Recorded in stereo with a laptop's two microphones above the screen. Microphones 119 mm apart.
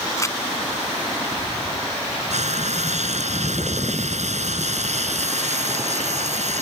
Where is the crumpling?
25° left (ahead or behind).